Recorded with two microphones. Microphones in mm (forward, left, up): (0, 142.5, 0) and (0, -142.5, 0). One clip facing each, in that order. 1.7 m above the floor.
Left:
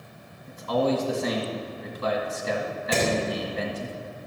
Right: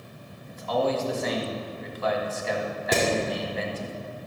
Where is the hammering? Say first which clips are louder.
Right 1 dB; 75° right (ahead or behind), 3.5 m.